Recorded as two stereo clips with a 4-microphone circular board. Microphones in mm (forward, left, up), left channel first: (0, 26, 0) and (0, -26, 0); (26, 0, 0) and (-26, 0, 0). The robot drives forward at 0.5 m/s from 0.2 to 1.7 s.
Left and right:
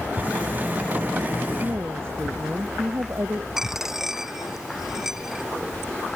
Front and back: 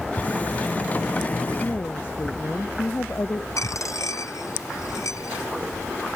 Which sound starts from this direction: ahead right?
A woman speaking, at 1.6 s.